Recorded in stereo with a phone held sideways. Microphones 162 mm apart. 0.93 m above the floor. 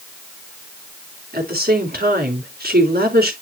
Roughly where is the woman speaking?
Right.